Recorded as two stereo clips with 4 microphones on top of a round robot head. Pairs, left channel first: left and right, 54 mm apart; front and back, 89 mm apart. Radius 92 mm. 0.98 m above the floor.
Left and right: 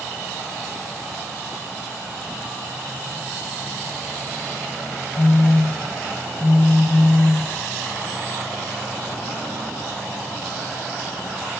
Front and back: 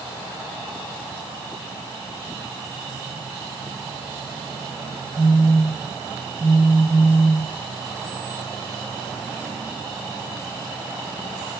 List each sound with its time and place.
5.2 s a phone buzzing: 105° left, 0.6 m